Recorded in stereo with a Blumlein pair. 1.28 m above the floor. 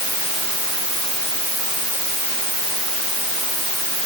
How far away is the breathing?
I don't hear breathing.